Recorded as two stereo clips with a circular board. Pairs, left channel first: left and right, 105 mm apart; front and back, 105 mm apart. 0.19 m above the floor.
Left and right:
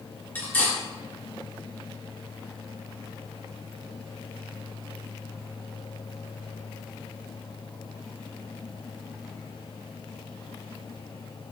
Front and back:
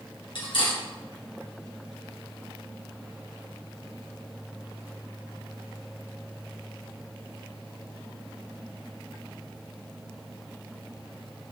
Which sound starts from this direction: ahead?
Cutlery clinking, at 0.3 s.